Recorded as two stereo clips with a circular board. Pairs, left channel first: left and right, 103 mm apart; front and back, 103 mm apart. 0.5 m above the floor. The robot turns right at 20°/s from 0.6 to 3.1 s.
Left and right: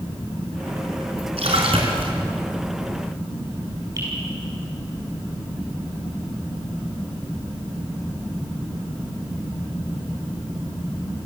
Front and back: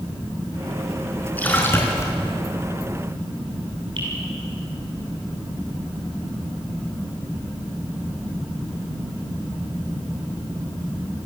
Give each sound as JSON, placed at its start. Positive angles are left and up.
{"t": 1.4, "sound": "a splash", "azimuth_deg": -75, "distance_m": 5.0}
{"t": 4.0, "sound": "dripping", "azimuth_deg": -145, "distance_m": 9.5}